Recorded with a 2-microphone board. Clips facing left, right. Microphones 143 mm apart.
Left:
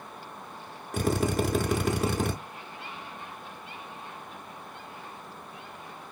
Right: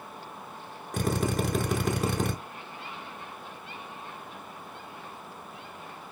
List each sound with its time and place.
0.9 s a drill: centre (ahead or behind), 0.5 m